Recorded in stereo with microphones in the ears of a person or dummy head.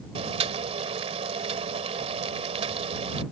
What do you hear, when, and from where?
0.1 s boiling: 35° right (ahead or behind)